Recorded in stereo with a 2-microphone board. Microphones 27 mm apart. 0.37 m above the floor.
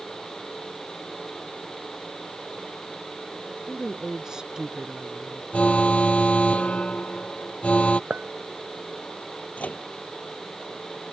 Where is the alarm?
55° left (ahead or behind).